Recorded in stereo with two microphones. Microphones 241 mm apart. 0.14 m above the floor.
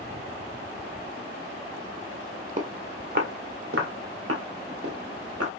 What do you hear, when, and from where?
2.6 s footsteps: 35° right (ahead or behind), 1.0 m; by 5.5 s 80° right, 2.5 m